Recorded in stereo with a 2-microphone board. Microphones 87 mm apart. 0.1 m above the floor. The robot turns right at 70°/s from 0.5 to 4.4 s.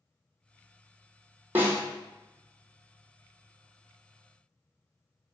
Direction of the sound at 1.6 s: 20° right (ahead or behind).